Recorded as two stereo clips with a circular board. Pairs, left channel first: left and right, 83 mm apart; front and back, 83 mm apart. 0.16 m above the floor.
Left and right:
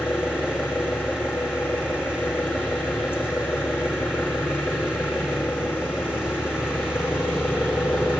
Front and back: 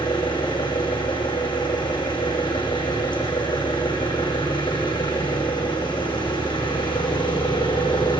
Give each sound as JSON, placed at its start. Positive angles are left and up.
{"t": 0.0, "sound": "an engine running", "azimuth_deg": 25, "distance_m": 9.0}